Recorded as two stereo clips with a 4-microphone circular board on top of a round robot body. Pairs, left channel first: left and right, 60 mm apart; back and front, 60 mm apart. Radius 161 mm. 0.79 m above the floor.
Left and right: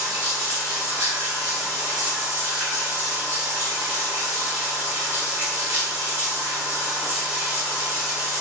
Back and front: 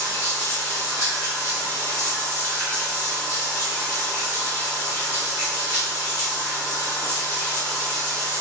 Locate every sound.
0.0 s running water: 145° right, 1.7 m